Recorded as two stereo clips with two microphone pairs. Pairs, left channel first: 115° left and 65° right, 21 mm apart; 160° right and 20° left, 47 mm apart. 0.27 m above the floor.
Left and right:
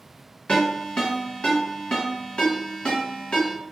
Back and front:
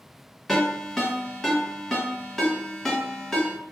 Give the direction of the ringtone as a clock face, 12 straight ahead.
8 o'clock.